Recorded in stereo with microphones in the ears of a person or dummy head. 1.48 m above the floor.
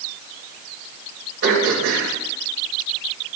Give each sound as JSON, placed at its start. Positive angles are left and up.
{"t": 1.4, "sound": "throat clearing", "side_deg": -60, "distance_m": 2.5}